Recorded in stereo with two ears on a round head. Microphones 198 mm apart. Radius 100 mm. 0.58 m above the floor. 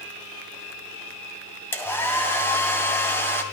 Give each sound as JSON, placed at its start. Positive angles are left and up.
{"t": 1.7, "sound": "a hair dryer", "side_deg": 10, "distance_m": 2.5}